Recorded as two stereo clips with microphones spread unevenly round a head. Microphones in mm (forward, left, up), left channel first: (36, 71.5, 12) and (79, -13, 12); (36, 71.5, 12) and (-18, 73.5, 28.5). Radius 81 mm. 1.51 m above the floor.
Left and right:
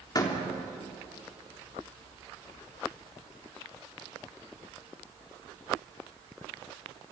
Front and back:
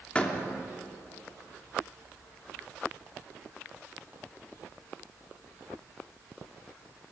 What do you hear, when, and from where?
0.1 s a door slam: 70° left, 3.5 m